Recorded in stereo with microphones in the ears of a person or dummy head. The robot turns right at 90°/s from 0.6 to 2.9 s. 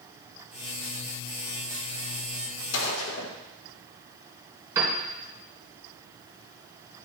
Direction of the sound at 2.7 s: 60° left (ahead or behind).